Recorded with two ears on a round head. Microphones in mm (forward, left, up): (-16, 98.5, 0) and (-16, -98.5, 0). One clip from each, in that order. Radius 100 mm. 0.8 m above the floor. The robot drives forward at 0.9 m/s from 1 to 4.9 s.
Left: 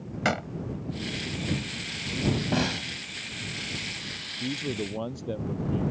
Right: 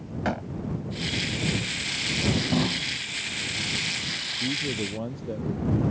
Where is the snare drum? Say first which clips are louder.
Right 2 dB; 55° left (ahead or behind); by 2.8 s 60° left (ahead or behind).